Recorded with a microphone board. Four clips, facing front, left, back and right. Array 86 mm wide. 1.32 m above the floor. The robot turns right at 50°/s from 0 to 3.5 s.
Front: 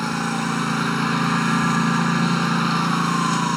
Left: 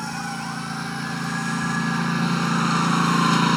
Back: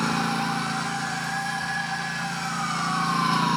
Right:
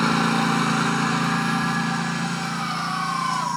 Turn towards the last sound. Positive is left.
turn(degrees=80)